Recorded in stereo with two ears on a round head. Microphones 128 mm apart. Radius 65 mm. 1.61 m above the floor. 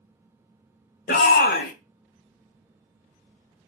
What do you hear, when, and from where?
1.1 s a shout: 70° left (ahead or behind), 0.6 m